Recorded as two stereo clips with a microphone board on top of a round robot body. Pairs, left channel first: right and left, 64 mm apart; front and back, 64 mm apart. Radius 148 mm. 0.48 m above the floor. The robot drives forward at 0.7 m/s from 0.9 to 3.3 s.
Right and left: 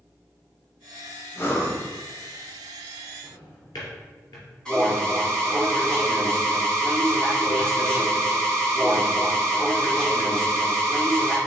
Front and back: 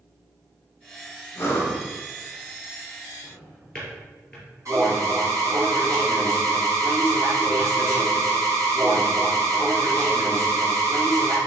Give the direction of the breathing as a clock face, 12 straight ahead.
1 o'clock.